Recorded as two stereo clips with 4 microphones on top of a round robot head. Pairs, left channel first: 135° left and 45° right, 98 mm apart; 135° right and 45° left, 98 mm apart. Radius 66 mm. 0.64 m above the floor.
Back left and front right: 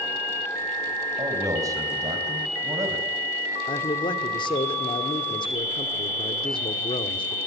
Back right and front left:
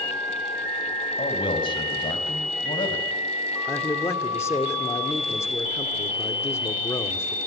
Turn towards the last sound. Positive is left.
turn(degrees=165)